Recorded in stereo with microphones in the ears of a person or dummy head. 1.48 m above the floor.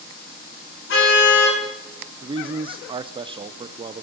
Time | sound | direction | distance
0.9 | a car horn | 75° left (ahead or behind) | 9 m
2.2 | a man speaking | 25° right (ahead or behind) | 0.8 m